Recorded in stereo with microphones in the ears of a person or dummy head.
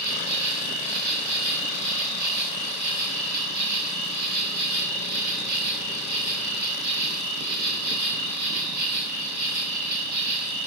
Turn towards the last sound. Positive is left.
turn(degrees=-60)  # may be behind; listen again after turning